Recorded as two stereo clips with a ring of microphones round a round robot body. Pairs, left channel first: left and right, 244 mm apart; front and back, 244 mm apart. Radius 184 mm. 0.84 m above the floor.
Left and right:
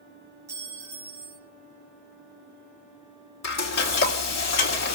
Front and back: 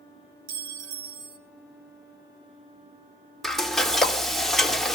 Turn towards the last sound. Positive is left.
turn(degrees=90)